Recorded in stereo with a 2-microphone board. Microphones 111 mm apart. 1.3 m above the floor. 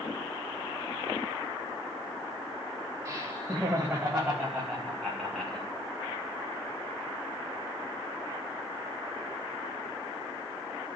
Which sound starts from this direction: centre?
Laughter, at 3.0 s.